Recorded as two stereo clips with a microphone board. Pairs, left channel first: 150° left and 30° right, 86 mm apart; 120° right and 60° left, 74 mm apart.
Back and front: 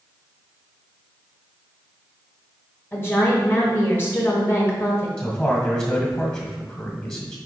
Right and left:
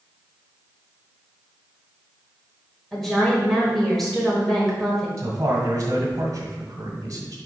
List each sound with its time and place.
2.9 s a woman speaking: 160° left, 1.5 m
5.2 s a man speaking: 85° left, 1.5 m